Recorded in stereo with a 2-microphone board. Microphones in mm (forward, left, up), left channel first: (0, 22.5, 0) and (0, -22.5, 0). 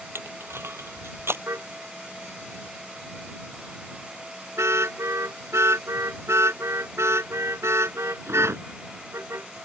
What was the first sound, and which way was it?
Crushing, 60° right (ahead or behind).